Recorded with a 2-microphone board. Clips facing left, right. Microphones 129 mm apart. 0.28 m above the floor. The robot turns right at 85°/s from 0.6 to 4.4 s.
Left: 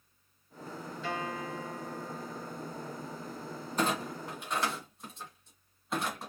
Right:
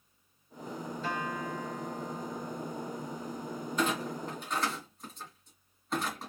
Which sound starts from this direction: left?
A clunk, at 3.8 s.